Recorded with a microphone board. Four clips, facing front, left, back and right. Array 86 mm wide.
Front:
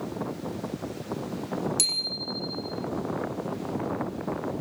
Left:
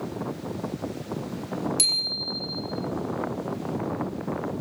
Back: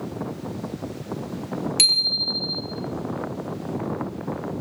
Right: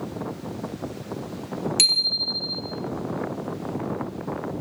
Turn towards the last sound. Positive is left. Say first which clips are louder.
# right 2 dB, back 4 dB
turn(degrees=-140)